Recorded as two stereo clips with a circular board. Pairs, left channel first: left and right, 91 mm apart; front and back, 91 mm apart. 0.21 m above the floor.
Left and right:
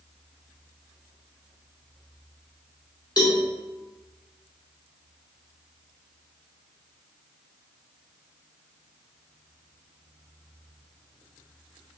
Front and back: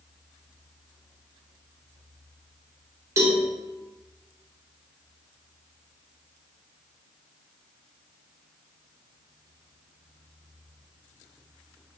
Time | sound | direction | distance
3.2 | a cowbell | 130° left | 0.8 m